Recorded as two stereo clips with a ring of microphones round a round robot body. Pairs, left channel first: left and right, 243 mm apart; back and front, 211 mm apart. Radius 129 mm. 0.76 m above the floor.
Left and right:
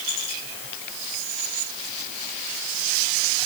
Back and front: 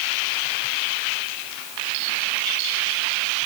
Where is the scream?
No scream in this recording.